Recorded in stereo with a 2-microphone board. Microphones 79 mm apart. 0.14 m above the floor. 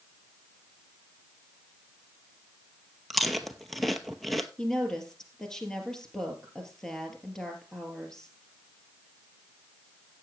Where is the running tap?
No running tap in this recording.